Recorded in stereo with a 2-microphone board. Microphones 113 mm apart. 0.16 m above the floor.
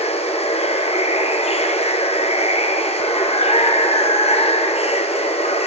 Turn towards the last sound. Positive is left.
turn(degrees=65)  # may be behind; listen again after turning